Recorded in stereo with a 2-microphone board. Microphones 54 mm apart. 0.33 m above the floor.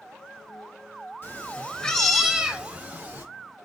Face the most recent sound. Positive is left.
turn(degrees=-40)  # may be behind; listen again after turning